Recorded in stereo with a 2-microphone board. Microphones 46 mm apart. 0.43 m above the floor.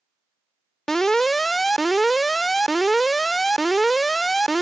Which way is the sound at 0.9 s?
10° left (ahead or behind).